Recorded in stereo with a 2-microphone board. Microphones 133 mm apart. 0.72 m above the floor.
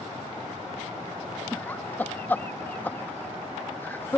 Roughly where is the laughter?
Centre.